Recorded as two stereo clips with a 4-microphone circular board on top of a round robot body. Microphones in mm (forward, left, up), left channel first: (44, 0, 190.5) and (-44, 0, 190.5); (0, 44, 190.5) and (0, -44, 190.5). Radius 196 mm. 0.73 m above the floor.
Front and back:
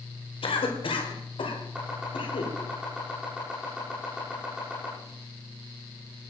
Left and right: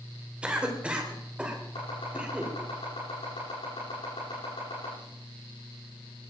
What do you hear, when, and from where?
0.4 s a cough: 10° right, 3.5 m
1.8 s chopping: 100° left, 9 m